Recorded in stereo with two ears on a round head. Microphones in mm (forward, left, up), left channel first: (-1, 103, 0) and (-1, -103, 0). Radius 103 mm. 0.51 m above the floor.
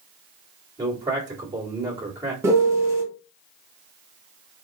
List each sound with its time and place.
0.8 s a man speaking: 15° right (ahead or behind), 1.4 m
2.4 s a piano: 10° right (ahead or behind), 0.7 m